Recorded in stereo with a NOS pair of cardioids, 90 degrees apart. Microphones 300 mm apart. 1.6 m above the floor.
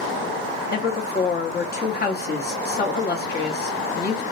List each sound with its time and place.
0.7 s a woman speaking: 35° left, 1.1 m